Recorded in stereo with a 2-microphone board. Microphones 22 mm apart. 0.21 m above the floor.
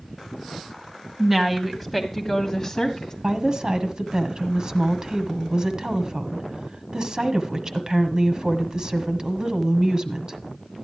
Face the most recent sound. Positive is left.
turn(degrees=-35)  # may be behind; listen again after turning